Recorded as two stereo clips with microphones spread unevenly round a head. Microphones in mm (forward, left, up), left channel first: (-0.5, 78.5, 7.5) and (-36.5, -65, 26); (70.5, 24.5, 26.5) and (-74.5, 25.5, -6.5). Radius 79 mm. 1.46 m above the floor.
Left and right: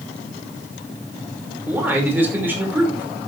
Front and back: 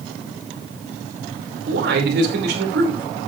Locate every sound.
1.7 s a man speaking: straight behind, 5 m